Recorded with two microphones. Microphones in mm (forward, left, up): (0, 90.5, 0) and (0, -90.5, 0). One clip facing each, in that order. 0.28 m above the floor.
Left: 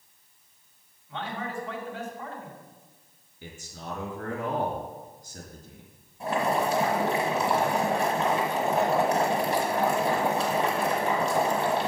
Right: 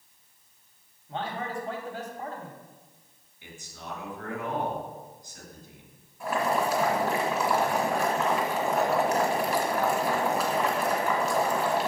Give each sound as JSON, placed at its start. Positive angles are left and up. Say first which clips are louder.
{"t": 1.1, "sound": "a man speaking", "louder": "right 1 dB", "side_deg": -40, "distance_m": 1.7}
{"t": 3.4, "sound": "a man speaking", "louder": "left 3 dB", "side_deg": 50, "distance_m": 3.0}
{"t": 6.2, "sound": "boiling", "louder": "left 1 dB", "side_deg": 35, "distance_m": 1.9}